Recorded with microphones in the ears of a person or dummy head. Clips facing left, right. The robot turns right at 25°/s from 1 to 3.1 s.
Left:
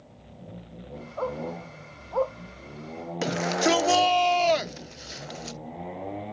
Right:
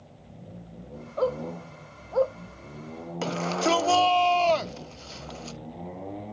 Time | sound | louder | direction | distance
1.2 | a dog barking | right 4 dB | 45° right (ahead or behind) | ?
3.2 | a shout | left 2 dB | 10° left (ahead or behind) | ?